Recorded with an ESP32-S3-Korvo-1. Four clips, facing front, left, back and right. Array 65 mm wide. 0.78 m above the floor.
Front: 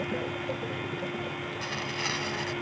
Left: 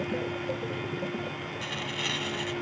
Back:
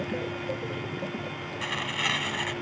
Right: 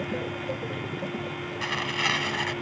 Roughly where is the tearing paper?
Right.